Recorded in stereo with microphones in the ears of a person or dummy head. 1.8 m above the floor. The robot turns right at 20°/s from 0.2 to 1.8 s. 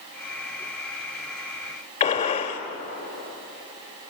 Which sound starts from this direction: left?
A gunshot, at 2.0 s.